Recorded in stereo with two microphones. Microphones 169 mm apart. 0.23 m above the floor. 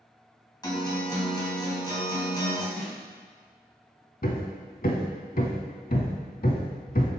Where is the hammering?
60° left (ahead or behind), 0.7 m.